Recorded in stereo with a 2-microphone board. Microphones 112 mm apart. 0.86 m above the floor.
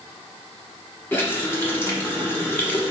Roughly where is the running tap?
Centre.